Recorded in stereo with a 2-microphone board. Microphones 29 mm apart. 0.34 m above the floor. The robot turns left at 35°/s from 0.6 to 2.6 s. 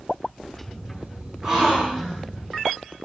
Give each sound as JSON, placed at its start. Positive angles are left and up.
{"t": 1.4, "sound": "a gasp", "side_deg": -20, "distance_m": 5.5}